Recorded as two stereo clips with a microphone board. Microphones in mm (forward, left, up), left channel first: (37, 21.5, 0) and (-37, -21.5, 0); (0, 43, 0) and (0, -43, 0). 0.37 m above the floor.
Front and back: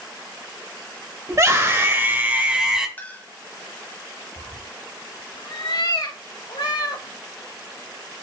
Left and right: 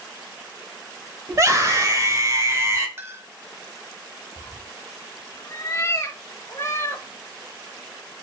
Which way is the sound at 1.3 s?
125° right.